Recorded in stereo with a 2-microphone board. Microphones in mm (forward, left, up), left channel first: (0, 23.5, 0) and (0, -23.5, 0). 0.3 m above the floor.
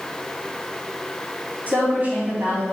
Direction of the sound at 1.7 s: 40° right (ahead or behind).